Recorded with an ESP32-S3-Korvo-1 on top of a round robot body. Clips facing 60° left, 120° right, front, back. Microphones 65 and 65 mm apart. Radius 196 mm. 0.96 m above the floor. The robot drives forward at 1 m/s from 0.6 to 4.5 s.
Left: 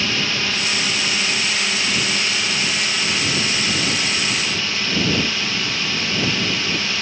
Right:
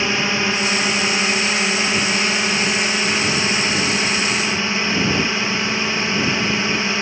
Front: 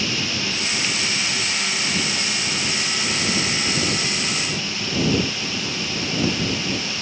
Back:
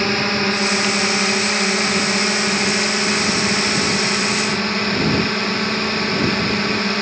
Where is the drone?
Straight behind.